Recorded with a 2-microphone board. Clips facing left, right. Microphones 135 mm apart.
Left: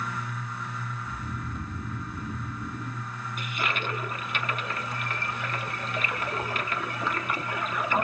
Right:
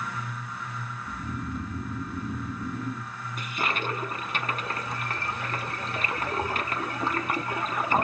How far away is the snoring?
About 1.9 m.